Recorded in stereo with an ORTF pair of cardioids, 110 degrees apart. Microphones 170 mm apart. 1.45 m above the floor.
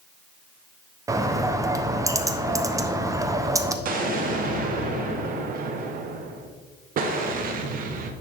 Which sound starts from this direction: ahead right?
An explosion, at 3.9 s.